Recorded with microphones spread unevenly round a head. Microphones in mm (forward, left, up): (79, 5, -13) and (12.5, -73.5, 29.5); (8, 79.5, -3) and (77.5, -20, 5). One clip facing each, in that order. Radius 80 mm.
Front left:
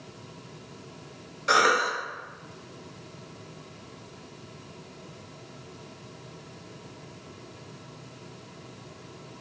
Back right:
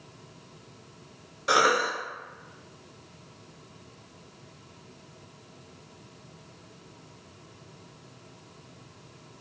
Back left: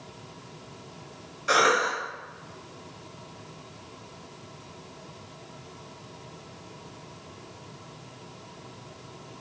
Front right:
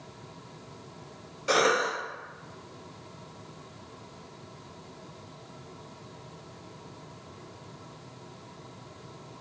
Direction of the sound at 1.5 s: 15° right.